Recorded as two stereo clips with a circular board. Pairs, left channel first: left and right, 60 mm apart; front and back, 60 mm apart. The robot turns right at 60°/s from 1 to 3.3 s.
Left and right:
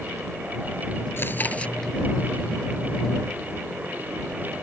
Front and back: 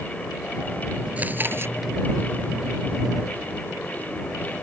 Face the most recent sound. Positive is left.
turn(degrees=-105)